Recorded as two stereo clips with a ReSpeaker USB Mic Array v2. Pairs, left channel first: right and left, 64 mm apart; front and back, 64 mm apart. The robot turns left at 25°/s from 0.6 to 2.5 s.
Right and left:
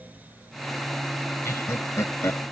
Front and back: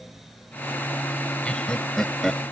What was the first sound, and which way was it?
Laughter, 70° right.